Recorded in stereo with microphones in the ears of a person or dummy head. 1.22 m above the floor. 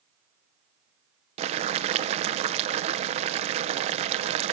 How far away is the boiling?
About 0.5 m.